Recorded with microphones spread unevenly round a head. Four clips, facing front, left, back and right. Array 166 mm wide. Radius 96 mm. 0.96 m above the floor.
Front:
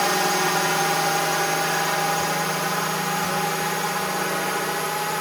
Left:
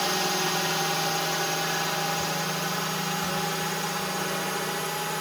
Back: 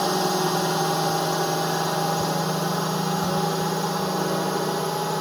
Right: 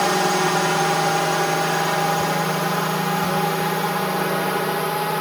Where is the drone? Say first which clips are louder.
Right 9 dB, front 1 dB; 95° right; by 5.2 s 115° right.